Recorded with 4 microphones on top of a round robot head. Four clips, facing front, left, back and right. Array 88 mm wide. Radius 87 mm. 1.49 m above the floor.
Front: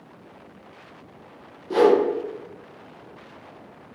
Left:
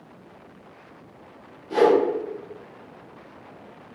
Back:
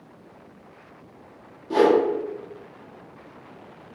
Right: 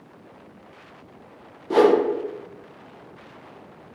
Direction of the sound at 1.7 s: 90° right.